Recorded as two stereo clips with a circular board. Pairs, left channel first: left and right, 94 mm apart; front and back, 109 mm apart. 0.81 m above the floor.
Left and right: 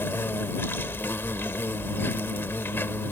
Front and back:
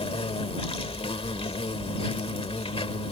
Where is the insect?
25° left.